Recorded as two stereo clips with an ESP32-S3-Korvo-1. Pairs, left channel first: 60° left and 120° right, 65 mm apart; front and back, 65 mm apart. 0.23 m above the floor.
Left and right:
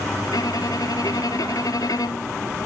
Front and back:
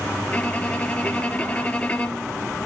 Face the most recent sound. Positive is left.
turn(degrees=65)